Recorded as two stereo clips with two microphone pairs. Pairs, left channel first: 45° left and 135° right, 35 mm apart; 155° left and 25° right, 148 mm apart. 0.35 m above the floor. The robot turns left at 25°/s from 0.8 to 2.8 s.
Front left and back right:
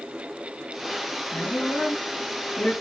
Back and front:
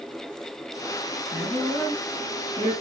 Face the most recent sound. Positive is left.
turn(degrees=35)